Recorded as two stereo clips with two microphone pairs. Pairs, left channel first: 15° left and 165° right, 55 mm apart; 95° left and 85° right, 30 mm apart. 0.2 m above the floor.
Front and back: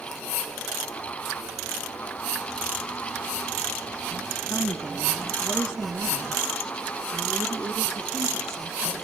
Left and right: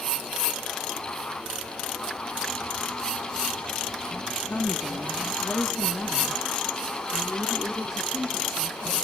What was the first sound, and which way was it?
A woman speaking, 70° left.